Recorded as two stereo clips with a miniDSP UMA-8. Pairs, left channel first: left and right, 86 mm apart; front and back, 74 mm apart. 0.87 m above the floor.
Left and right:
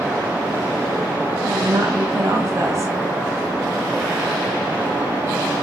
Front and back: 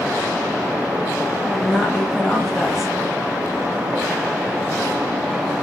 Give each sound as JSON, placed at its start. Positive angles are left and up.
{"t": 1.4, "sound": "a woman speaking", "azimuth_deg": -90, "distance_m": 0.7}